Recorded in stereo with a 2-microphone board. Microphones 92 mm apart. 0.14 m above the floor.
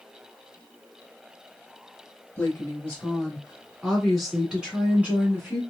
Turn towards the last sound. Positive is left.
turn(degrees=-25)  # may be behind; listen again after turning